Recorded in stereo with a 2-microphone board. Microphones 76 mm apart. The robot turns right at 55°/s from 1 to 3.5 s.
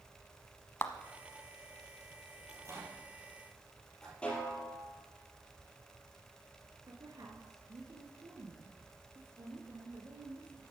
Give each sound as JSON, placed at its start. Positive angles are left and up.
{"t": 0.8, "sound": "a clap", "side_deg": 30, "distance_m": 1.1}
{"t": 2.5, "sound": "a microwave", "side_deg": -50, "distance_m": 4.5}
{"t": 4.2, "sound": "a snare drum", "side_deg": 10, "distance_m": 4.0}
{"t": 6.9, "sound": "a woman speaking", "side_deg": -60, "distance_m": 2.5}